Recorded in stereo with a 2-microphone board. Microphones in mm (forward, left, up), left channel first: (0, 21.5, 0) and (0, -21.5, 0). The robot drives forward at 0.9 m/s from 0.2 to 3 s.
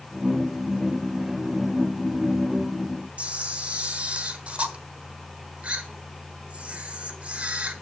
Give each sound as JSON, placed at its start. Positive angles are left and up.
{"t": 3.2, "sound": "a camera shutter", "side_deg": -30, "distance_m": 1.3}